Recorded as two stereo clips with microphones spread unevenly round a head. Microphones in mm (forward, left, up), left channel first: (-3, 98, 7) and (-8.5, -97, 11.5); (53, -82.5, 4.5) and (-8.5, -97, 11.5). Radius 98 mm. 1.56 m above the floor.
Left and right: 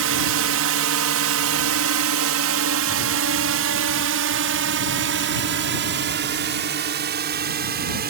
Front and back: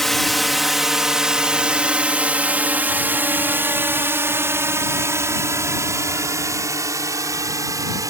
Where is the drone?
75° right; by 8.1 s 140° right.